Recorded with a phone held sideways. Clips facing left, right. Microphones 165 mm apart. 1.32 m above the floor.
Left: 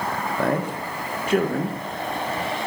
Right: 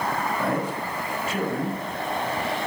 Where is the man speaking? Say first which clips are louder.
Left 2 dB; 65° left (ahead or behind), 1.2 m.